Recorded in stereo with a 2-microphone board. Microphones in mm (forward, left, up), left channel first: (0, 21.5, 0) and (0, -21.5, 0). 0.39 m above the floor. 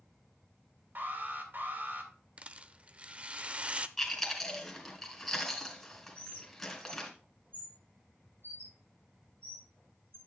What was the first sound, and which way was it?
An alarm, 50° right (ahead or behind).